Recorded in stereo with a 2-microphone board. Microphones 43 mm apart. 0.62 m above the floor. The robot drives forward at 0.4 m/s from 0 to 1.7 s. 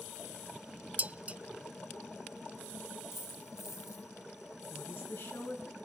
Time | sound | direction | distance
1.0 | dishes clattering | 35° right (ahead or behind) | 0.5 m
3.1 | a dropped coin | 85° left | 9.5 m
4.7 | a woman speaking | 60° left (ahead or behind) | 5.5 m